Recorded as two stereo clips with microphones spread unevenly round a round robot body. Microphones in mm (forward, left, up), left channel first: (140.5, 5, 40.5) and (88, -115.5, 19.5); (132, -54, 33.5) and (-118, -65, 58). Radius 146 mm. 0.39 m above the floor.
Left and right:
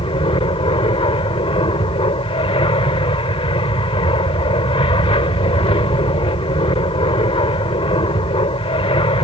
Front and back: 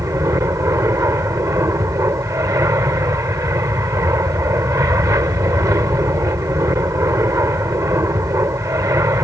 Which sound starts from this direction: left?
An aircraft, at 0.0 s.